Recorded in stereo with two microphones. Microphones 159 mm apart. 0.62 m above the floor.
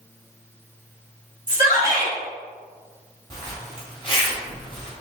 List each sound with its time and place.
1.5 s a shout: 55° left (ahead or behind), 1.8 m
3.3 s a zipper: 30° left (ahead or behind), 1.5 m